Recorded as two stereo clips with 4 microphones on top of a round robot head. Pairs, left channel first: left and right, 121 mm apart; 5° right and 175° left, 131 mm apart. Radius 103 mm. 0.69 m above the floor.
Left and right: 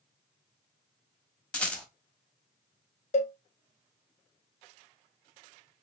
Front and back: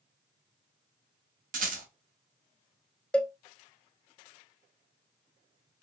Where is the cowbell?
80° left, 0.7 m.